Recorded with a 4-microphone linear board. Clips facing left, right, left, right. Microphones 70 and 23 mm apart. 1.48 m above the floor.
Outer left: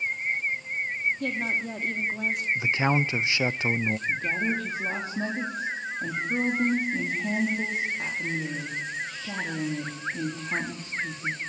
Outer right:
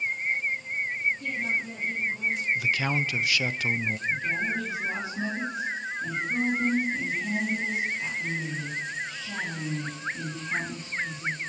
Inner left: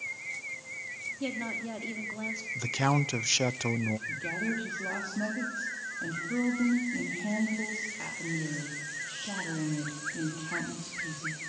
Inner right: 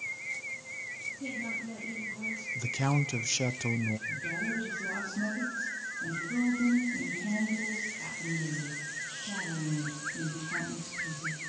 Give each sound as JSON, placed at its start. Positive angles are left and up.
{"t": 1.2, "sound": "a woman speaking", "side_deg": 70, "distance_m": 2.5}
{"t": 2.5, "sound": "a man speaking", "side_deg": 25, "distance_m": 0.5}
{"t": 4.1, "sound": "a woman speaking", "side_deg": 55, "distance_m": 3.0}